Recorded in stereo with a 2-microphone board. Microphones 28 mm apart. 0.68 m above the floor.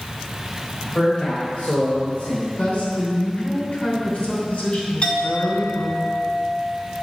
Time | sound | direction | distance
0.8 | a man speaking | 30° left (ahead or behind) | 3 m
2.6 | a woman speaking | 50° left (ahead or behind) | 2.5 m
5.0 | a clink | 35° left (ahead or behind) | 1.5 m